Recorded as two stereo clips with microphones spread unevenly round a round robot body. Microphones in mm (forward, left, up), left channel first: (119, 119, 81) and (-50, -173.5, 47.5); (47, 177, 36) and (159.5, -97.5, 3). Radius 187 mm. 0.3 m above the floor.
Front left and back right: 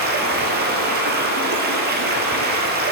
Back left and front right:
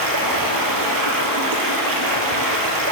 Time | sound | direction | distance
0.0 | running water | 55° right | 0.9 m